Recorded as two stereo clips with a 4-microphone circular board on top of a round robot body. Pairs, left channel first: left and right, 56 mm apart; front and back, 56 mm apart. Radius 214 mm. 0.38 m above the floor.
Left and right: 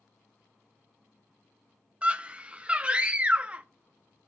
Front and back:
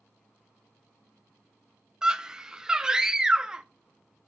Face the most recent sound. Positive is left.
turn(degrees=-120)